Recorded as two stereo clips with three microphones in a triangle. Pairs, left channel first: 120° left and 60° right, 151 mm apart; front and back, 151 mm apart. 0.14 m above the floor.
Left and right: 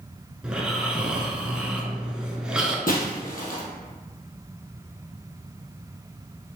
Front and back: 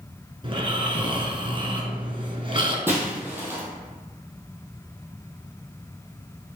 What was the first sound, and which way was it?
Snoring, 140° right.